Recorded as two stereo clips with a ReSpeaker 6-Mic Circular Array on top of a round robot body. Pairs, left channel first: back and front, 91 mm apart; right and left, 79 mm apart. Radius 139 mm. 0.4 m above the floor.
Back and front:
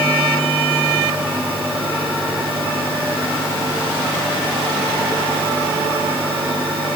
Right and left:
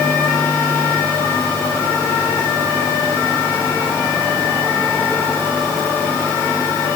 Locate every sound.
Only background noise.